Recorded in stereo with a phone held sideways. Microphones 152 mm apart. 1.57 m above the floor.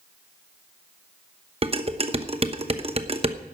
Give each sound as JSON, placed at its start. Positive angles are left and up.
{"t": 1.6, "sound": "dishes clattering", "side_deg": -40, "distance_m": 1.0}